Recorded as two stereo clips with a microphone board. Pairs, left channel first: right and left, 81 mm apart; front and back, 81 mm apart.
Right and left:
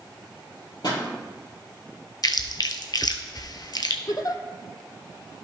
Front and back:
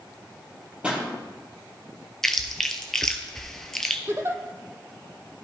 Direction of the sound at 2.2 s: 85° right.